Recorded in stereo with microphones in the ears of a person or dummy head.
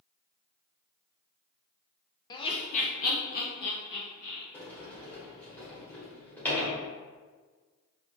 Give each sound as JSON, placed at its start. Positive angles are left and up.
{"t": 2.3, "sound": "laughter", "side_deg": 20, "distance_m": 0.5}
{"t": 4.5, "sound": "a sliding door", "side_deg": 10, "distance_m": 1.5}